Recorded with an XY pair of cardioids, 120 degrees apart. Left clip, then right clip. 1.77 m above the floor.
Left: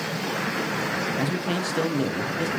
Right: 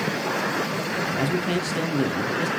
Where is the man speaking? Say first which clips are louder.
Right 2 dB; 5° right, 1.4 m.